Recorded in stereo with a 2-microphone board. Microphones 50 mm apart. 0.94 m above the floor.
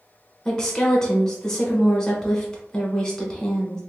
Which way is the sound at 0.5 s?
15° left (ahead or behind).